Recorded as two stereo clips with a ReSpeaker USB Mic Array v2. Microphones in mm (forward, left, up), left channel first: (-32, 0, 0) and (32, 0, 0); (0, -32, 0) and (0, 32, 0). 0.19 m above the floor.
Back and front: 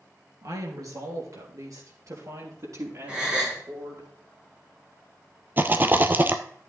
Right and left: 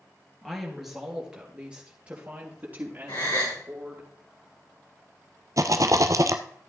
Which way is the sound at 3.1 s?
75° right.